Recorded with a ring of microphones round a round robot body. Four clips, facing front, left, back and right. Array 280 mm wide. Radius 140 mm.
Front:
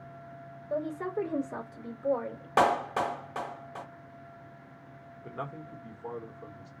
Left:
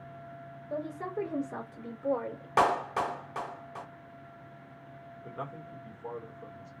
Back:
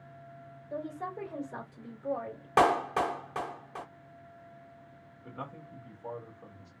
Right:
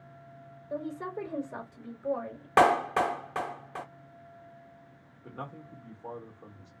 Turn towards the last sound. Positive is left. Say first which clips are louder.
# left 1 dB, front 4 dB
turn(degrees=5)